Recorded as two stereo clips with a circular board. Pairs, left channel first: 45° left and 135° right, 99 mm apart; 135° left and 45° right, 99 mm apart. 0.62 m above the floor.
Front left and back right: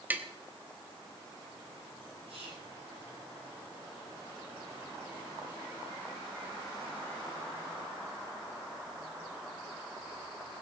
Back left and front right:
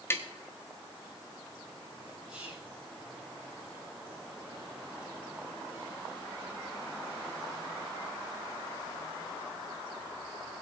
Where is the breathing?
No breathing in this recording.